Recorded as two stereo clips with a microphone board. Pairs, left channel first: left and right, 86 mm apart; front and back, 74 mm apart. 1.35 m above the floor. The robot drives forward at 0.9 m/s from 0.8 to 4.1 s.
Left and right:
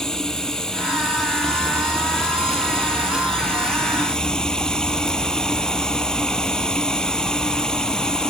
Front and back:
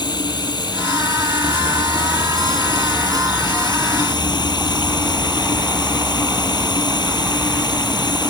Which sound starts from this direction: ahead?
Running water, at 0.0 s.